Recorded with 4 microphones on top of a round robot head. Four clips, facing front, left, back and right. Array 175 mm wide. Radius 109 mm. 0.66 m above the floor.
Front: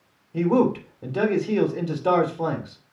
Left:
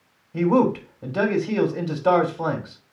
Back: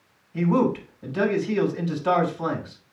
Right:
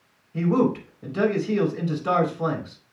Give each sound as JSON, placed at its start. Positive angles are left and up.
{"t": 0.3, "sound": "a man speaking", "azimuth_deg": 45, "distance_m": 3.0}